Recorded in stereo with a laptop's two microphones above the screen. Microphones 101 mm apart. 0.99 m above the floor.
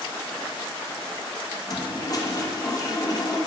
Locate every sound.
1.7 s a toilet flushing: 35° left (ahead or behind), 0.8 m